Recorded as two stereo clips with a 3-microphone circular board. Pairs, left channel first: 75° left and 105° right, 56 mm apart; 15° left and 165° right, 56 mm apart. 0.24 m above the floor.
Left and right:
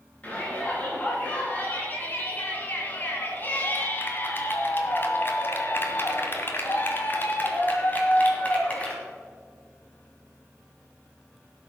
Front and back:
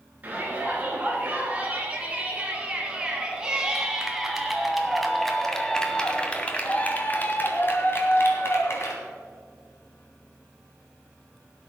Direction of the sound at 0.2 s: 135° left.